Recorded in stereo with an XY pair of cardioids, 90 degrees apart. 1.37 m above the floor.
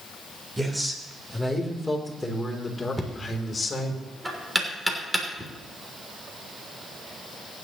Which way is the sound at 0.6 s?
15° right.